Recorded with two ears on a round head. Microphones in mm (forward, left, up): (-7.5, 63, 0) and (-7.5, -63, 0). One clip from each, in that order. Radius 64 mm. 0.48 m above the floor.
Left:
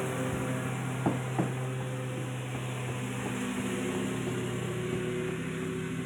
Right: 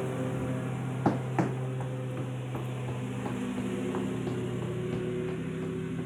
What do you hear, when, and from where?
0.0 s a lawn mower: 45° left (ahead or behind)
1.1 s running footsteps: 55° right (ahead or behind); by 6.1 s 25° right (ahead or behind)